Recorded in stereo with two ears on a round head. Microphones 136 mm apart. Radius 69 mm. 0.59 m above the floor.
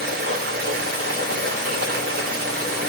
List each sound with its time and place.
0.0 s running water: 70° right (ahead or behind), 1.2 m